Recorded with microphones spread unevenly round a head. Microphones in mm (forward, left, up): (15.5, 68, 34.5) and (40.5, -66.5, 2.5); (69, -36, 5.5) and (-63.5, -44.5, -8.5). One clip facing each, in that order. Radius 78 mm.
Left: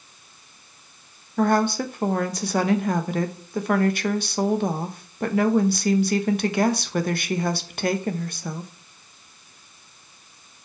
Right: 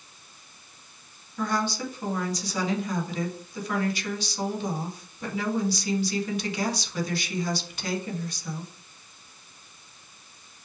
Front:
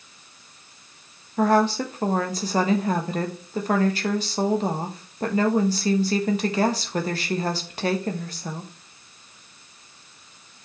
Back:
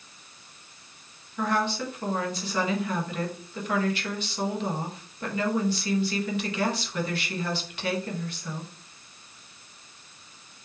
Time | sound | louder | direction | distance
1.4 | a woman speaking | left 8 dB, front 8 dB | 65° left | 1.0 m